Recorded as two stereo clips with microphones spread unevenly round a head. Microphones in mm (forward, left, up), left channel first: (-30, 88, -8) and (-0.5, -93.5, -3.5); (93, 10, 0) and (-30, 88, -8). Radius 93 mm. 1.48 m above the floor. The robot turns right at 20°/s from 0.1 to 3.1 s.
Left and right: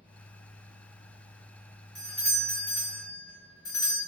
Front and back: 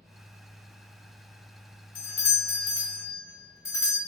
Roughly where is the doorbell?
Ahead.